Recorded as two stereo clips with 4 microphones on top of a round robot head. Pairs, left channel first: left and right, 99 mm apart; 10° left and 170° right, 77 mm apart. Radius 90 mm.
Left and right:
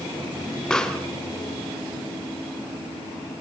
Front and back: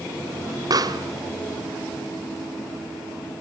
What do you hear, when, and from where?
0.7 s a pop: 170° left, 1.9 m